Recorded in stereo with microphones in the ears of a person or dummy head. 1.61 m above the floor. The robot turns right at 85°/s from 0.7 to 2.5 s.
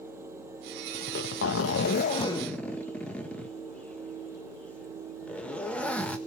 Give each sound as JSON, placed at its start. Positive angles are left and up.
{"t": 0.9, "sound": "a zipper", "azimuth_deg": 40, "distance_m": 1.7}